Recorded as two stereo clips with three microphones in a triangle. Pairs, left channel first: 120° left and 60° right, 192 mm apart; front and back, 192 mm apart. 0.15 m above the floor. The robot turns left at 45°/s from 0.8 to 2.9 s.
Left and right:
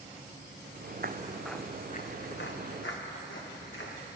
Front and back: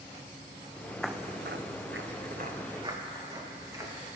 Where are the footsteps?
85° right, 0.5 m; by 3.9 s 105° left, 3 m.